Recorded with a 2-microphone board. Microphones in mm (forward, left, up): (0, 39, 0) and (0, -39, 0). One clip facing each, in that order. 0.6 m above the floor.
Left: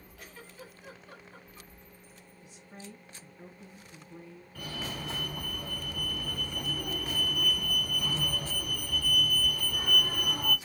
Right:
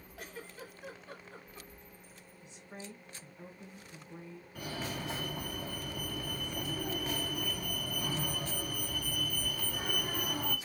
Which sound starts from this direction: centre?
A fire alarm, at 4.5 s.